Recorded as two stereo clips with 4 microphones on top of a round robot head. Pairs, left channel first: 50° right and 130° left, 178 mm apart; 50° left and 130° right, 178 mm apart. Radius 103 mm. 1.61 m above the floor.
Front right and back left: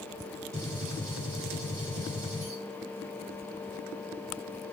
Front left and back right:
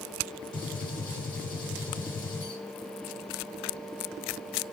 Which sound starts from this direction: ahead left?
A gunshot, at 0.5 s.